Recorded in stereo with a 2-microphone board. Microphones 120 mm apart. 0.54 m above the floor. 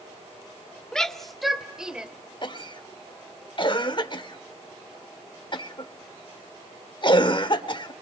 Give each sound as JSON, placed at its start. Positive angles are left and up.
{"t": 0.9, "sound": "a shout", "side_deg": 5, "distance_m": 1.2}
{"t": 2.4, "sound": "a cough", "side_deg": 40, "distance_m": 1.3}